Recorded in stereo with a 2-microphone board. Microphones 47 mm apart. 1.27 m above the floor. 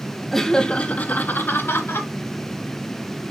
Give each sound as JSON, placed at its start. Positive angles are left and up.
{"t": 0.3, "sound": "laughter", "side_deg": 5, "distance_m": 0.7}